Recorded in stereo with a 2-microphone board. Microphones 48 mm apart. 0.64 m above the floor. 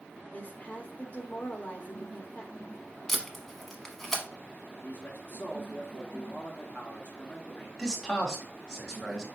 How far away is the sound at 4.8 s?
About 1.3 m.